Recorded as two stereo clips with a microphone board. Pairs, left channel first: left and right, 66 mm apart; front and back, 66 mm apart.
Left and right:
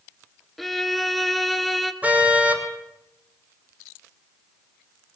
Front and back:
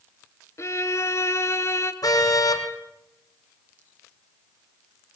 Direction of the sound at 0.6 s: 5° left.